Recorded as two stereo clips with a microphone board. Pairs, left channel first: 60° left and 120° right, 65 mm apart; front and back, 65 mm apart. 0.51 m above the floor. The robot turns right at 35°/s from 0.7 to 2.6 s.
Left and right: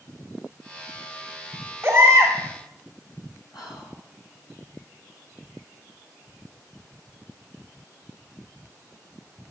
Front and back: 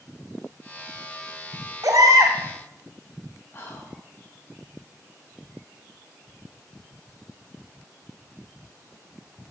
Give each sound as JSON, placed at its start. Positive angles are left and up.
{"t": 1.8, "sound": "a baby crying", "azimuth_deg": 180, "distance_m": 2.0}
{"t": 3.5, "sound": "whispering", "azimuth_deg": 60, "distance_m": 5.0}